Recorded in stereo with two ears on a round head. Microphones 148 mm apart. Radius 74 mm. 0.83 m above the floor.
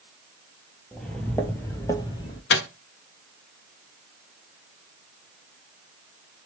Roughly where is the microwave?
Left.